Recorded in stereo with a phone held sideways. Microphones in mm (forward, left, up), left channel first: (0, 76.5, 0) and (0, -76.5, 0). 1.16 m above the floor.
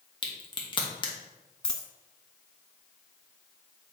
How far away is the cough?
No cough in this recording.